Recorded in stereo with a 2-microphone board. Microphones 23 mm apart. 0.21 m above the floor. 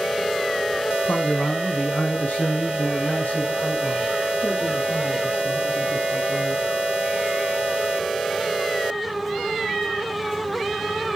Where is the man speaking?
60° left (ahead or behind), 2.5 m; by 6.6 s 50° left (ahead or behind), 4.5 m.